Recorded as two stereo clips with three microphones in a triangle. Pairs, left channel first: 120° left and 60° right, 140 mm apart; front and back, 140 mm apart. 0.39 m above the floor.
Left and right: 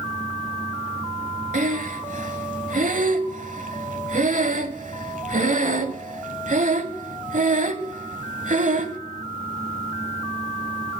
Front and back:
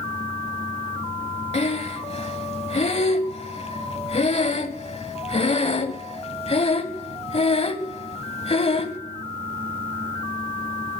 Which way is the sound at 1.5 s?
40° right.